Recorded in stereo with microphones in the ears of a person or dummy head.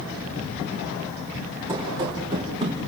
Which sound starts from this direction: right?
Running footsteps, at 1.7 s.